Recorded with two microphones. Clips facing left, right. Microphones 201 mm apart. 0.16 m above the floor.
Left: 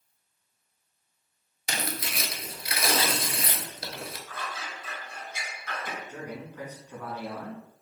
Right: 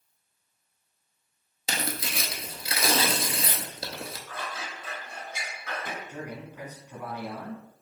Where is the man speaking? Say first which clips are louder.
Even; 15° right (ahead or behind), 1.0 m.